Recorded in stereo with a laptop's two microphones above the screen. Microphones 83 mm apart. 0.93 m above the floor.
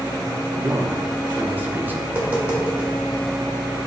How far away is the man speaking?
About 0.6 m.